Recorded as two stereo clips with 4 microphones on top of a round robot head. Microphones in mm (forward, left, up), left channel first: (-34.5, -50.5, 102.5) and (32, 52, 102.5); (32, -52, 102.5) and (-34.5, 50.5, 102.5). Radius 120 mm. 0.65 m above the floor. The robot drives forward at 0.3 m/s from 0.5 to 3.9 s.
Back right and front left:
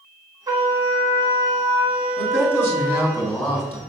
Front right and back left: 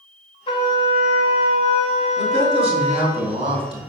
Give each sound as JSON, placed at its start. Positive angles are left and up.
{"t": 0.5, "sound": "a trumpet", "azimuth_deg": -5, "distance_m": 1.2}
{"t": 2.2, "sound": "a man speaking", "azimuth_deg": 165, "distance_m": 3.0}